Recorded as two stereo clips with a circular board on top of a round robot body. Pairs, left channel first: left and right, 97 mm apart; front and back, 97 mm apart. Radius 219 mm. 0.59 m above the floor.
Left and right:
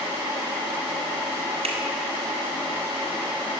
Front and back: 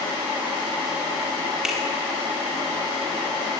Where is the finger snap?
95° right, 4.5 m.